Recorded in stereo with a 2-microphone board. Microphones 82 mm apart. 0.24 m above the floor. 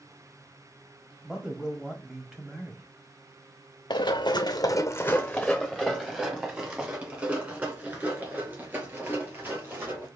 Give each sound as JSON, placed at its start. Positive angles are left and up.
{"t": 1.2, "sound": "a man speaking", "side_deg": -10, "distance_m": 1.1}
{"t": 3.9, "sound": "running footsteps", "side_deg": 75, "distance_m": 0.9}